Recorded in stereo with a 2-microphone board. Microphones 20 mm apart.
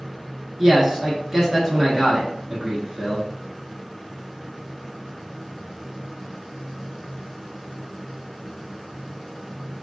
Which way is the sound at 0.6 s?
15° right (ahead or behind).